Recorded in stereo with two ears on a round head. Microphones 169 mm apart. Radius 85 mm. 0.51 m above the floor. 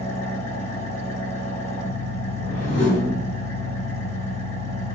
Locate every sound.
0.0 s an engine running: 35° left (ahead or behind), 0.8 m
2.4 s a whoosh: 65° left (ahead or behind), 1.8 m